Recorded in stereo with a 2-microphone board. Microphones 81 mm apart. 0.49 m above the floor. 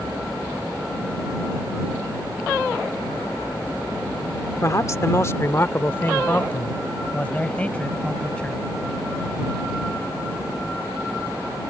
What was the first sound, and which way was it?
A man speaking, 40° left (ahead or behind).